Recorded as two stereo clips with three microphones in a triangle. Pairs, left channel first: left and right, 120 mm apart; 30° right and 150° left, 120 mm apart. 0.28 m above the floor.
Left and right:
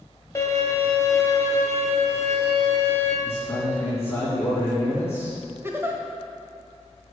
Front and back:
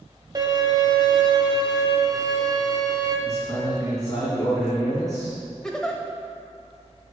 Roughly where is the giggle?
Right.